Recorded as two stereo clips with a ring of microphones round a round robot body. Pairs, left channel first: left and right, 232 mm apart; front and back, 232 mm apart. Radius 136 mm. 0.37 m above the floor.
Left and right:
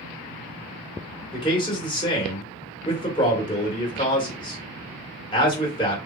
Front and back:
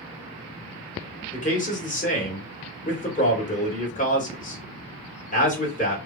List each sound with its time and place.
1.3 s a man speaking: 35° left, 1.8 m